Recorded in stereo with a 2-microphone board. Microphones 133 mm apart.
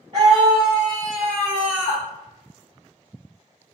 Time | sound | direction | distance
0.1 | a scream | 40° right (ahead or behind) | 1.9 m